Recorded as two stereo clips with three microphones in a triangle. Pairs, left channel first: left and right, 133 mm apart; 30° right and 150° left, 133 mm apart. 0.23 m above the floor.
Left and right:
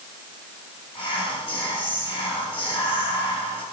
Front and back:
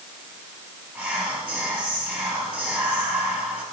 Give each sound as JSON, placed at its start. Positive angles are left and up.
{"t": 0.9, "sound": "whispering", "azimuth_deg": 75, "distance_m": 1.3}